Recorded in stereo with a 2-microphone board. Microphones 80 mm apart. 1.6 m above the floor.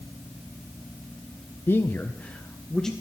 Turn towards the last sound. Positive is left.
turn(degrees=5)  # may be behind; listen again after turning